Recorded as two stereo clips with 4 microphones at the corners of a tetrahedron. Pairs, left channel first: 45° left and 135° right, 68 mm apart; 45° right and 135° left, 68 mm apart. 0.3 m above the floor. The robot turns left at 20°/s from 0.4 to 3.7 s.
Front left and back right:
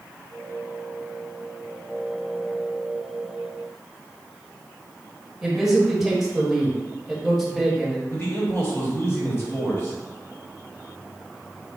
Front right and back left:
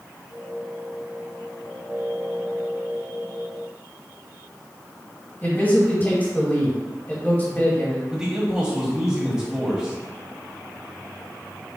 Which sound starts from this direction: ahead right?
A man speaking, at 5.4 s.